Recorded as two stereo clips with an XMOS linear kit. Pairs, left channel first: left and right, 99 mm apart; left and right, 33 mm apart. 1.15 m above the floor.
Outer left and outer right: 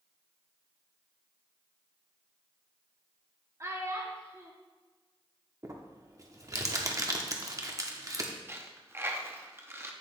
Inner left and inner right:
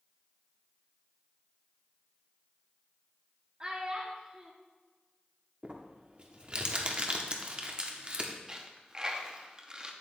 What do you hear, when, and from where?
3.6 s a child speaking: 30° right (ahead or behind), 1.1 m
5.6 s crumpling: 35° right (ahead or behind), 0.8 m
8.5 s a dropped coin: 25° right (ahead or behind), 0.7 m